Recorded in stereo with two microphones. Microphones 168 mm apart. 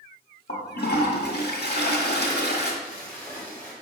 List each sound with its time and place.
0.5 s a toilet flushing: 80° left, 1.4 m
2.8 s a splash: 10° left (ahead or behind), 1.8 m